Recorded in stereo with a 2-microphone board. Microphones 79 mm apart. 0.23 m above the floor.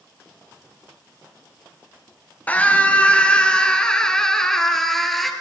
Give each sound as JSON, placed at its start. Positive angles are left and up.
{"t": 2.5, "sound": "a scream", "side_deg": 20, "distance_m": 5.0}